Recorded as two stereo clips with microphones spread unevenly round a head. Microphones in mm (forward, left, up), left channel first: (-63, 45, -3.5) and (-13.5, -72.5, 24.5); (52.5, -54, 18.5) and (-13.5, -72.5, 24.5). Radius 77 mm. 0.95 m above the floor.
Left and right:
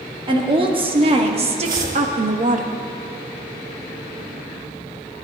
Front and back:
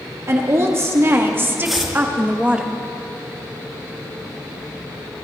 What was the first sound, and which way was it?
A woman speaking, 120° right.